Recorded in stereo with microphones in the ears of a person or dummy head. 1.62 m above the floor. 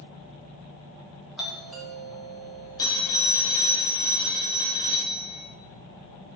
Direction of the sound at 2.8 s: 20° left (ahead or behind).